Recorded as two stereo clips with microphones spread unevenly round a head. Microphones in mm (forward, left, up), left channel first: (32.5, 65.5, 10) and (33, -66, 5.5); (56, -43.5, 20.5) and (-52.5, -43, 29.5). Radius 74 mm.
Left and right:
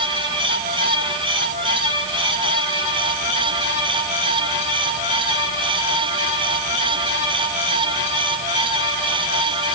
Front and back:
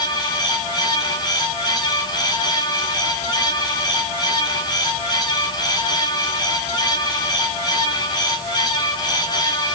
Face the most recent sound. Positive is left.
No sound to turn to.